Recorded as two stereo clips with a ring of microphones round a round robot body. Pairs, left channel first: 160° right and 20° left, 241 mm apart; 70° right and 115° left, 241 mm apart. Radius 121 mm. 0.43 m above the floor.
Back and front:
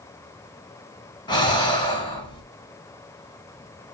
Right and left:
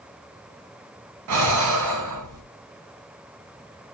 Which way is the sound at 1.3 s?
130° left.